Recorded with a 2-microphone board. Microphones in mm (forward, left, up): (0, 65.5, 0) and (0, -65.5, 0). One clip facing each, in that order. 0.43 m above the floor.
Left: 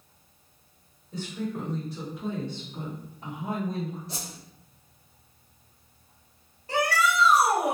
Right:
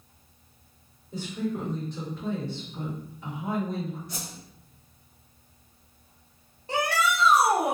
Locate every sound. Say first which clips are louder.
1.1 s a woman speaking: right 2 dB; 15° right (ahead or behind), 1.2 m; by 4.0 s 50° left (ahead or behind), 1.7 m
4.1 s a whoosh: even; 30° left (ahead or behind), 0.9 m
6.7 s a shout: left 1 dB; 25° right (ahead or behind), 0.8 m